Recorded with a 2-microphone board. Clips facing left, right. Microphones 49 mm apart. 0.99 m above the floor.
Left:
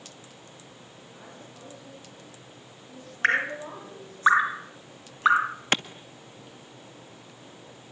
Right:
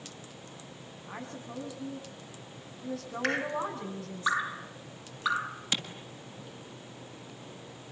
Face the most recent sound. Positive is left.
turn(degrees=55)  # may be behind; listen again after turning